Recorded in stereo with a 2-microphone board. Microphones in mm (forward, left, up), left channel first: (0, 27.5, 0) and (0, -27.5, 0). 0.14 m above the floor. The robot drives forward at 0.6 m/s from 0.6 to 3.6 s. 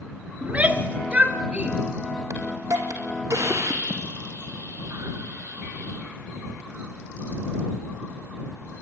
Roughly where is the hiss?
Right.